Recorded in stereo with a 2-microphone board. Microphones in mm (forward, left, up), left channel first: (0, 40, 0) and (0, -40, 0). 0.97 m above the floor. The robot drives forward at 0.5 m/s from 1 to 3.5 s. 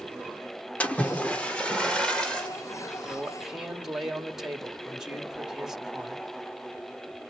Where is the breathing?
No breathing in this recording.